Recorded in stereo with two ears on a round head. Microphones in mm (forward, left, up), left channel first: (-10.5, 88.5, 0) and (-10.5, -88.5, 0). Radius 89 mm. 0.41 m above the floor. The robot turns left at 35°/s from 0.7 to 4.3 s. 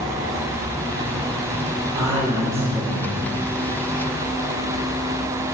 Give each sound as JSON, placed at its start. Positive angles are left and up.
{"t": 1.9, "sound": "a man speaking", "azimuth_deg": -145, "distance_m": 6.0}